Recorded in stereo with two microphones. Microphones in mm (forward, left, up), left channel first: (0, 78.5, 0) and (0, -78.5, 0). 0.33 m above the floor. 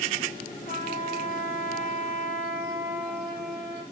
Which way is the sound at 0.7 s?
65° left (ahead or behind).